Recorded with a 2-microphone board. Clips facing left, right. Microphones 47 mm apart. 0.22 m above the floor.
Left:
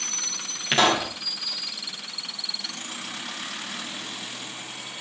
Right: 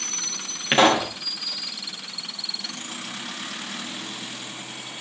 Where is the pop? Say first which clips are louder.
Right 3 dB; 20° right (ahead or behind), 4.5 m.